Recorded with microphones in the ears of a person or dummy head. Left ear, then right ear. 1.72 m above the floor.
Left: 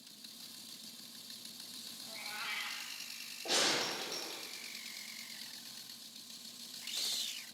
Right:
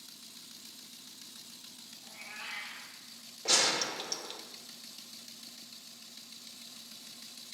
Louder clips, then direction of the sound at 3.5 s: Right 4 dB; 45° right (ahead or behind).